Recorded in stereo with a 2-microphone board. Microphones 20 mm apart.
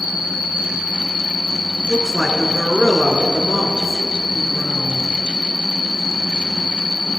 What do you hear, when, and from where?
0.0 s an insect: 40° right (ahead or behind), 4.5 m
1.9 s a woman speaking: centre (ahead or behind), 1.5 m